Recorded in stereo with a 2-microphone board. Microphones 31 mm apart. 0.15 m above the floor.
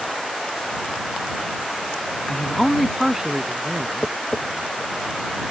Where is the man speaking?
25° left (ahead or behind); by 4.2 s 40° right (ahead or behind).